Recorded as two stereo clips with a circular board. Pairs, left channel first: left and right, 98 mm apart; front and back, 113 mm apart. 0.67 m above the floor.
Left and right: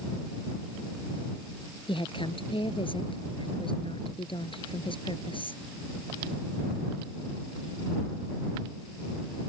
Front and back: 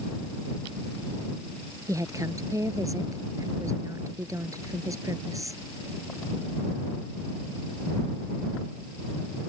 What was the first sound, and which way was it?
A woman speaking, 120° left.